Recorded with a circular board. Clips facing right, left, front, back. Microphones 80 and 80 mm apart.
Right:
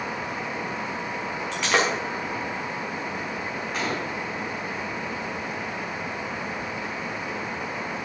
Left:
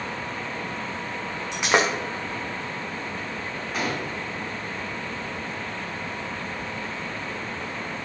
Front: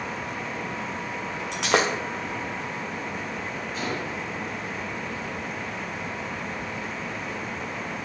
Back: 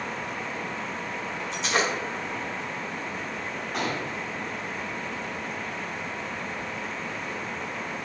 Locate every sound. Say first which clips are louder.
1.5 s breaking glass: left 2 dB, front 4 dB; 20° left, 2.0 m
3.7 s a gunshot: left 1 dB, back 2 dB; 170° left, 2.5 m